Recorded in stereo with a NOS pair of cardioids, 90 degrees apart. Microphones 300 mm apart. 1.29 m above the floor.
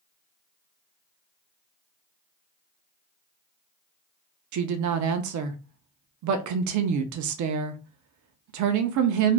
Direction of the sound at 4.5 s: 70° right.